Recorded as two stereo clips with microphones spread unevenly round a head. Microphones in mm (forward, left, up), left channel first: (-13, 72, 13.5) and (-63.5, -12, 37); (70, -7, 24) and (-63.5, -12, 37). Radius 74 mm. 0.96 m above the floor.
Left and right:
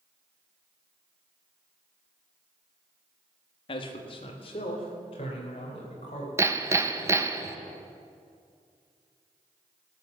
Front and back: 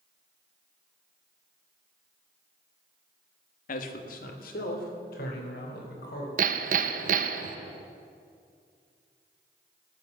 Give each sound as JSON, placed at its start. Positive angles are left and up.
{"t": 3.7, "sound": "a man speaking", "azimuth_deg": 20, "distance_m": 1.2}
{"t": 6.4, "sound": "hammering", "azimuth_deg": 170, "distance_m": 0.8}